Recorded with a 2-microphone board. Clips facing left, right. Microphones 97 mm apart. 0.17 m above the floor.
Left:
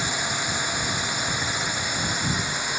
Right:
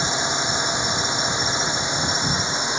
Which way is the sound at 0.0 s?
20° right (ahead or behind).